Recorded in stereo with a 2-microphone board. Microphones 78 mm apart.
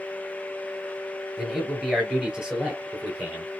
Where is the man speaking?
5° right (ahead or behind), 2.5 m; by 3.6 s 15° right (ahead or behind), 3.5 m.